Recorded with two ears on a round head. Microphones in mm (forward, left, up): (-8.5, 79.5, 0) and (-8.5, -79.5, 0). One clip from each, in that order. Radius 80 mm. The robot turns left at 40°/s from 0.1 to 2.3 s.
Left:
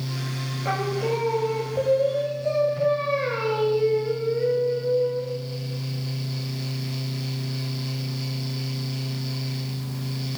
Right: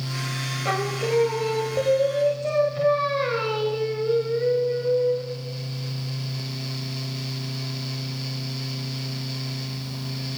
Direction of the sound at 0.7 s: 70° right.